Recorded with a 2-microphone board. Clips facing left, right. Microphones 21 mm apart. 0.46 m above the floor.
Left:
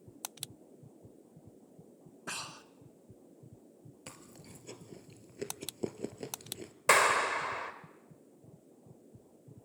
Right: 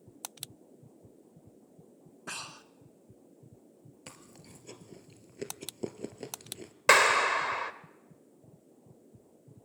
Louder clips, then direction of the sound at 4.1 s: Even; 5° right (ahead or behind).